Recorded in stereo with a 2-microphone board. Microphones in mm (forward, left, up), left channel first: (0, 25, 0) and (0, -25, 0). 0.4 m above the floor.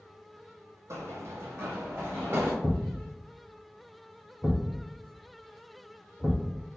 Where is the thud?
5° right (ahead or behind), 1.5 m.